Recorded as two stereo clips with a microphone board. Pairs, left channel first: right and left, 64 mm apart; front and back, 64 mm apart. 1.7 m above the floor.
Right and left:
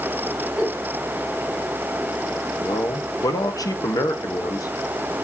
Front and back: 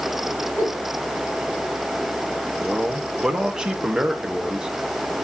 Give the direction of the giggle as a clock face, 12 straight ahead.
12 o'clock.